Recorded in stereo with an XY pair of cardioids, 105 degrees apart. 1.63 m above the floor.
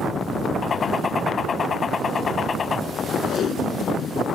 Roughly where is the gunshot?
Ahead left.